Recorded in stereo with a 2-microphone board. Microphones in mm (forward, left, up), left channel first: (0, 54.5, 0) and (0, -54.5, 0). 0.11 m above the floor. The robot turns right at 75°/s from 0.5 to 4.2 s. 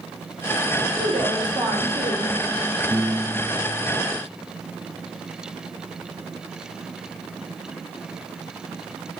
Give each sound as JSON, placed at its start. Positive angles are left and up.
{"t": 1.0, "sound": "a woman speaking", "azimuth_deg": 170, "distance_m": 4.0}
{"t": 2.9, "sound": "a piano", "azimuth_deg": -40, "distance_m": 0.9}